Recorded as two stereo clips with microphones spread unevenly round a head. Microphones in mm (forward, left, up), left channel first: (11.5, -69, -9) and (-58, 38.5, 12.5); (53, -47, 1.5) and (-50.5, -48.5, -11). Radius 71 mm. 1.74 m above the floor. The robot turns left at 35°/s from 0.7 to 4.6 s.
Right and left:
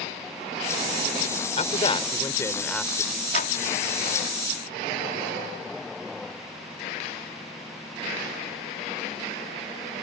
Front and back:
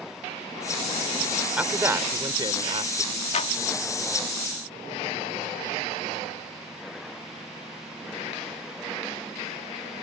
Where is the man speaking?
100° right; by 3.2 s 155° right.